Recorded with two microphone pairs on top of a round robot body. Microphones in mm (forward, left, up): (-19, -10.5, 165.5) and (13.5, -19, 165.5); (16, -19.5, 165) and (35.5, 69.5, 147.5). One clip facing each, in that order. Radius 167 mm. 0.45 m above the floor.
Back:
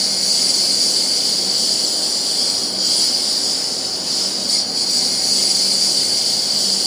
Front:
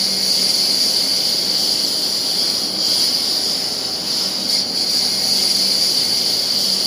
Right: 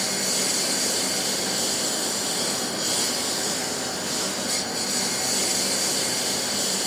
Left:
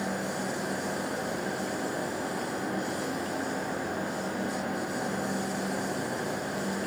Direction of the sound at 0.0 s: 95° right.